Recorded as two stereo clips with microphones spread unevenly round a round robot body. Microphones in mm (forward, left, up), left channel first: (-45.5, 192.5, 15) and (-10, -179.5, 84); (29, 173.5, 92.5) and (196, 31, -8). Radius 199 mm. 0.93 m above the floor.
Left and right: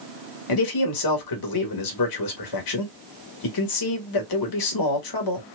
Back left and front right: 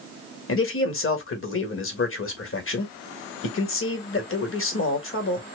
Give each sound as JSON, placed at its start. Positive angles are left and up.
{"t": 0.5, "sound": "a man speaking", "azimuth_deg": 100, "distance_m": 1.7}